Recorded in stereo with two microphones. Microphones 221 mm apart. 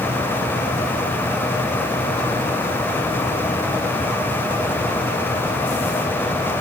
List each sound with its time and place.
Only background noise.